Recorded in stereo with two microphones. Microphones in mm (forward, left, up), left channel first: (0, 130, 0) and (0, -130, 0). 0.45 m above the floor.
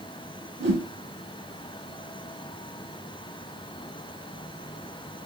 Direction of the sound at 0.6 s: 70° right (ahead or behind).